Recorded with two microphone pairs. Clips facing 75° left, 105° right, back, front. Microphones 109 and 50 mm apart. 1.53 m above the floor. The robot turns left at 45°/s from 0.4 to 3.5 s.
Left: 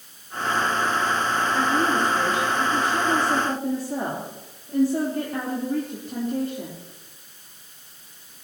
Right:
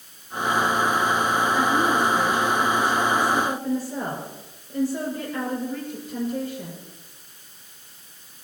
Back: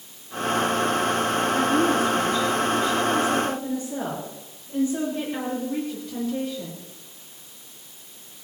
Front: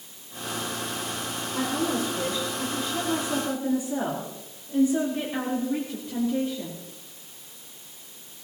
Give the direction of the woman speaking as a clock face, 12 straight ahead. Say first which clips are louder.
Left 1 dB, back 4 dB; 7 o'clock.